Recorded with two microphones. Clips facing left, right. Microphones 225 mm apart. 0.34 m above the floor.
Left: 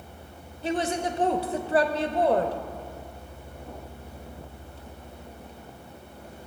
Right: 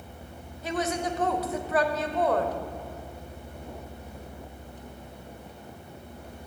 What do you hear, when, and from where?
0.6 s a woman speaking: 30° left (ahead or behind), 0.9 m